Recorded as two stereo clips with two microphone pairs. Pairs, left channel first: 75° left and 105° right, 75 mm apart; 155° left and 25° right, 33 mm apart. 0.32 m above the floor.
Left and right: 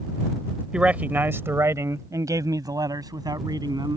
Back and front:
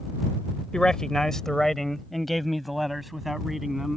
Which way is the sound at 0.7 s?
165° right.